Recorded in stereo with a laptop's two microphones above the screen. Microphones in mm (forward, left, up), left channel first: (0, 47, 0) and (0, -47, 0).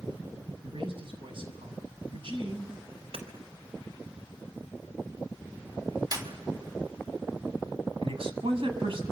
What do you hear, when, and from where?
0.6 s a man speaking: 65° right (ahead or behind), 6 m
3.1 s hammering: 85° right, 4.5 m
6.1 s a clap: 40° right (ahead or behind), 5 m
8.0 s a man speaking: 65° right (ahead or behind), 7 m